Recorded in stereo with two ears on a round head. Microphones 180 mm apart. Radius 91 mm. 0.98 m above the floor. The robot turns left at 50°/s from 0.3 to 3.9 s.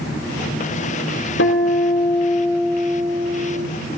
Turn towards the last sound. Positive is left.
turn(degrees=-55)